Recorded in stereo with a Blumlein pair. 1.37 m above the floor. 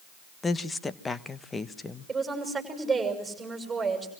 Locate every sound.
0.4 s a woman speaking: 15° left, 1.3 m
2.1 s a woman speaking: 10° right, 7 m